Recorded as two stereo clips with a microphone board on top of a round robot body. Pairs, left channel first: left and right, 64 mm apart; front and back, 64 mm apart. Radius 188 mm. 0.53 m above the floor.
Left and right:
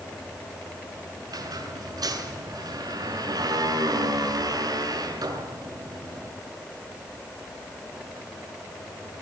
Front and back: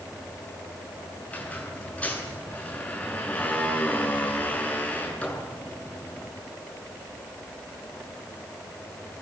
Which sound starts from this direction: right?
A squeak, at 1.3 s.